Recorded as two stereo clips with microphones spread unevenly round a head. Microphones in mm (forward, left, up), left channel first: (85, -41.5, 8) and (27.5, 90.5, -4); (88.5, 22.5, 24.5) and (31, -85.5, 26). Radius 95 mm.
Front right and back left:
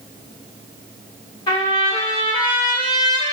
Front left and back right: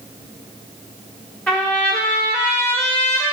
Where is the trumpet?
20° right, 1.6 m.